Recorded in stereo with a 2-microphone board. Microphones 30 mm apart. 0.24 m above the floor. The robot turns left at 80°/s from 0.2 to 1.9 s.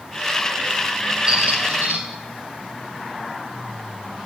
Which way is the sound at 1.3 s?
35° right.